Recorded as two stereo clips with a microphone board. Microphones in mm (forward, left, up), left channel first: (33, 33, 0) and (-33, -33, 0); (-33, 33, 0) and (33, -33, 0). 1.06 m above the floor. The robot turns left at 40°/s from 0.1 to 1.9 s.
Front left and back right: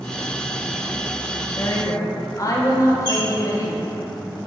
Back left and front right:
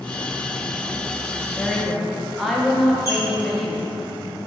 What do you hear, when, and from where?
1.6 s a woman speaking: 55° left, 0.6 m; by 4.0 s 45° left, 0.6 m
3.0 s a squeak: 175° right, 1.7 m